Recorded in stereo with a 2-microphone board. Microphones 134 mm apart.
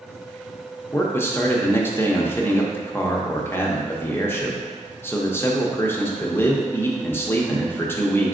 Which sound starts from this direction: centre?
A man speaking, at 0.9 s.